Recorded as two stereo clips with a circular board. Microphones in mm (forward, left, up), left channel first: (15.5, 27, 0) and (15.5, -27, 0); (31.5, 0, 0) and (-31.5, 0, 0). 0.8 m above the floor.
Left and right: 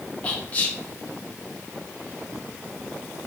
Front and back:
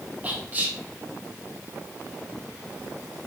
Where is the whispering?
135° left, 0.9 m.